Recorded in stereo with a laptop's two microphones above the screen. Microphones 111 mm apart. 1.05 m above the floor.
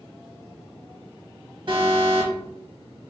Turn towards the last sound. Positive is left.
turn(degrees=-55)  # may be behind; listen again after turning